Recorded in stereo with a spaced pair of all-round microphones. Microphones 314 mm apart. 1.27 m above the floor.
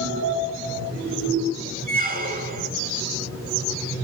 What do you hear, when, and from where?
1.9 s a squeak: 30° right (ahead or behind), 2 m